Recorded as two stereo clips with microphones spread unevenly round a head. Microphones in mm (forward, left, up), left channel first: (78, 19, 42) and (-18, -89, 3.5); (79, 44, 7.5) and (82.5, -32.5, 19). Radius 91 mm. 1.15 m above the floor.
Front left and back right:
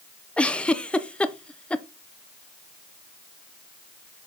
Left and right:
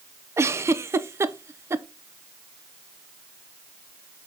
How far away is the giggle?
About 0.6 m.